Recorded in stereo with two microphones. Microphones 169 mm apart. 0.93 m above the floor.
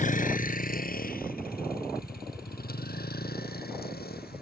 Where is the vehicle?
55° left (ahead or behind); by 4.4 s 75° left (ahead or behind).